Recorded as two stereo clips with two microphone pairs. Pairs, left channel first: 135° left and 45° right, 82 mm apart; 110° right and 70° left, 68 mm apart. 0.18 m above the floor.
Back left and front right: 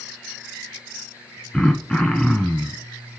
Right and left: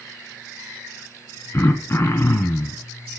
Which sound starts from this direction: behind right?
Throat clearing, at 1.5 s.